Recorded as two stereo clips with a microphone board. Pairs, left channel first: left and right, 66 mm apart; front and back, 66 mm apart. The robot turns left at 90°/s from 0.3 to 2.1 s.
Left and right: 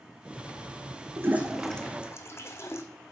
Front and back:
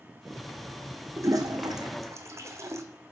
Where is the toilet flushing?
135° right, 0.9 m; by 2.8 s 140° left, 0.9 m.